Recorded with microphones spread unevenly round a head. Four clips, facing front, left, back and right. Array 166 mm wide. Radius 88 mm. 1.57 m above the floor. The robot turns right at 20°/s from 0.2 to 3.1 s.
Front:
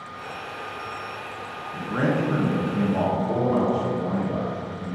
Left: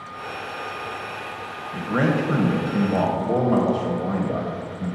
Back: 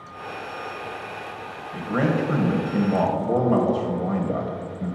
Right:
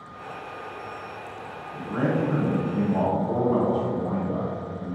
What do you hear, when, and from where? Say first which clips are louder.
1.7 s a man speaking: left 4 dB, back 1 dB; 105° left, 1.4 m; by 5.0 s 130° left, 1.4 m